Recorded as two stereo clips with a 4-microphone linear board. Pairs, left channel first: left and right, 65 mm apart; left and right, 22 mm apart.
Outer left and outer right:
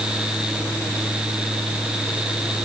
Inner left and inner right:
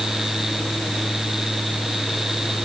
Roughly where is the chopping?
No chopping in this recording.